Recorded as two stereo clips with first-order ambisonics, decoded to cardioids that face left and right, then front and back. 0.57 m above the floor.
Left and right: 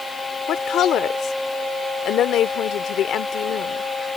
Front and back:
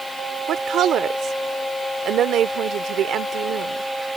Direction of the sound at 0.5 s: 135° left.